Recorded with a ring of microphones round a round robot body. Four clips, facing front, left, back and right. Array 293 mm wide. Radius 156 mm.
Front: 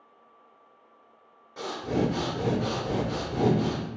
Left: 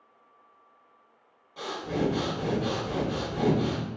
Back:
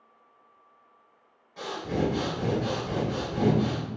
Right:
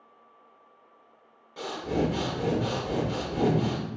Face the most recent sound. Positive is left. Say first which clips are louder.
# right 2 dB, front 1 dB
turn(degrees=-30)